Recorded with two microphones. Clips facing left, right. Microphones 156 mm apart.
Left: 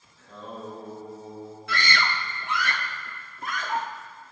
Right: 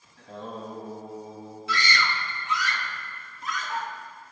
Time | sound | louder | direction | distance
0.2 | singing | right 2 dB | 75° right (ahead or behind) | 5 m
1.7 | a scream | even | 60° left (ahead or behind) | 1.6 m